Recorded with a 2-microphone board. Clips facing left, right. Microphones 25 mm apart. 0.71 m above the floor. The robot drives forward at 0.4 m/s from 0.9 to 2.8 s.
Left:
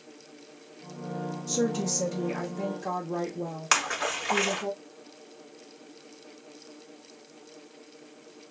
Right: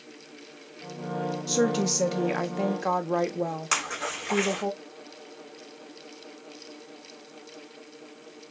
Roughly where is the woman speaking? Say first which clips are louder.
Right 3 dB; right.